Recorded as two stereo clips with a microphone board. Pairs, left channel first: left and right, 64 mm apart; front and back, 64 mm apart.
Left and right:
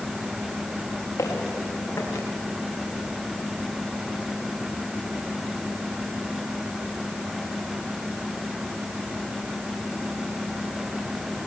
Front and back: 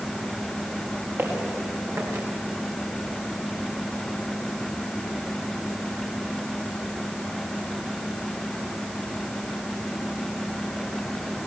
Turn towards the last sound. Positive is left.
turn(degrees=135)